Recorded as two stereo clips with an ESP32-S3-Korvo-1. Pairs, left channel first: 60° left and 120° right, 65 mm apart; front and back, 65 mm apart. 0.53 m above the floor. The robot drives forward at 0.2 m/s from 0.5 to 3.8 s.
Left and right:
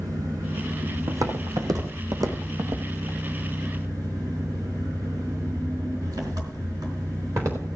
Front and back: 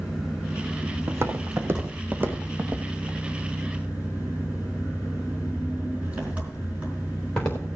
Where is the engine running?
100° right, 3.5 m; by 7.8 s 110° right, 3.5 m.